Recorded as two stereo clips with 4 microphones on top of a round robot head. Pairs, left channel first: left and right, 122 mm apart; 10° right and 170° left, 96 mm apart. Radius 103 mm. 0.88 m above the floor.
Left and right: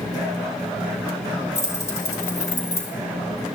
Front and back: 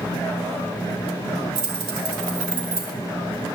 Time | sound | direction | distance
1.6 | keys jangling | 155° left | 3.5 m